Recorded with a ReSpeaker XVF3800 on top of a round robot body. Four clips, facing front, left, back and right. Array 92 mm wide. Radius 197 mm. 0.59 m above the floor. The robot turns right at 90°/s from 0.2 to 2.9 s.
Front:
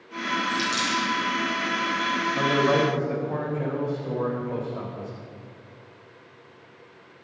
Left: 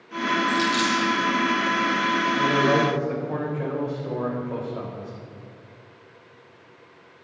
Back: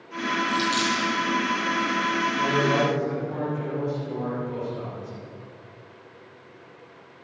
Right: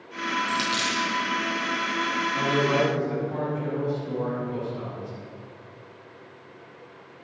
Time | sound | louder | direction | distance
0.5 | a dropped coin | left 4 dB, back 2 dB | 95° right | 3 m
2.4 | a man speaking | left 2 dB, front 3 dB | 5° left | 4.5 m